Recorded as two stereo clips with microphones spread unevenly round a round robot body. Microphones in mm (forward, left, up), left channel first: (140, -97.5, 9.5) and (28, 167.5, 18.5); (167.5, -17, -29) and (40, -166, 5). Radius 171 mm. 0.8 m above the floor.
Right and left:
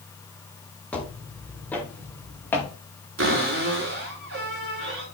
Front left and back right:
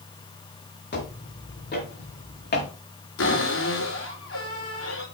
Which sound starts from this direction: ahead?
Footsteps, at 0.9 s.